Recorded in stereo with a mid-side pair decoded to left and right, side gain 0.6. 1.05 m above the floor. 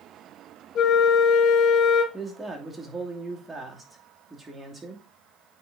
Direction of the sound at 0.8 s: 50° left.